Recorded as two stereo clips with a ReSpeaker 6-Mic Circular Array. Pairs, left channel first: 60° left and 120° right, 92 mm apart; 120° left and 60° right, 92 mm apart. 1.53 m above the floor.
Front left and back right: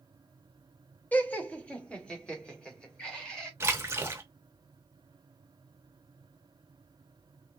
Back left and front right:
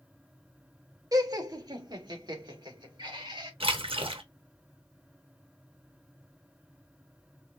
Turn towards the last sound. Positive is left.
turn(degrees=-60)